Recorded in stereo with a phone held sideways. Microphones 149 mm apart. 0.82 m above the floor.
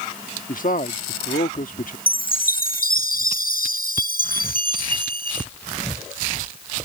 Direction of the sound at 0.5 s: 65° left (ahead or behind).